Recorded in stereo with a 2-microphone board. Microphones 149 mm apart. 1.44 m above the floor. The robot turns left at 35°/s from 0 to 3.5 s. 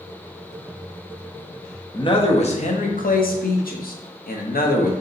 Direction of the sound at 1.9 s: 150° left.